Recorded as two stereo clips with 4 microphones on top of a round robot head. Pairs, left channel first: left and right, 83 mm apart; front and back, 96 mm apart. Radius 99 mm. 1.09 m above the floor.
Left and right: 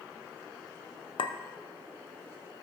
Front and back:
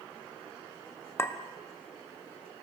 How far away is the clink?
About 0.6 m.